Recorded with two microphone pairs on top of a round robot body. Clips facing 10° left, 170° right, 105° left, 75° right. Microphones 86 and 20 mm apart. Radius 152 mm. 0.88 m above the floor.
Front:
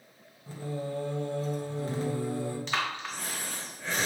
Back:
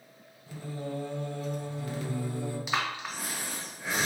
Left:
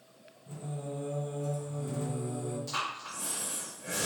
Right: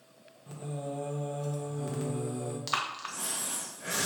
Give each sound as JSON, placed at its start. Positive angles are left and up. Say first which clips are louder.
{"t": 0.5, "sound": "singing", "louder": "front 2 dB, right 2 dB", "azimuth_deg": -45, "distance_m": 1.3}
{"t": 2.7, "sound": "breathing", "louder": "even, right 6 dB", "azimuth_deg": -95, "distance_m": 1.1}